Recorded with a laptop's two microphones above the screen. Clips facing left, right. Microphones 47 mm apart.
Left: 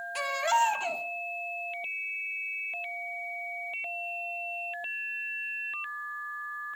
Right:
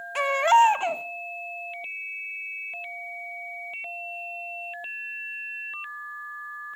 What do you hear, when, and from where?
0.1 s a baby crying: 40° right (ahead or behind), 0.7 m